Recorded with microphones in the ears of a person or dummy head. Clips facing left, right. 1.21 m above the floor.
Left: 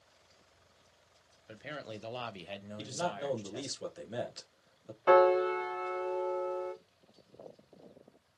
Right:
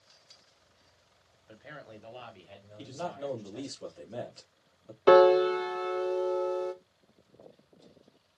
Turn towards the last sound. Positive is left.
turn(degrees=-50)  # may be behind; listen again after turning